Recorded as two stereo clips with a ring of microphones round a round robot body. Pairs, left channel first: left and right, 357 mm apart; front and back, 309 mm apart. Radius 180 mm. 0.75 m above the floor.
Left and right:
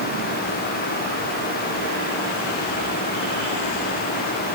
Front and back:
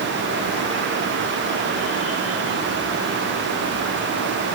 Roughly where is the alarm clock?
No alarm clock in this recording.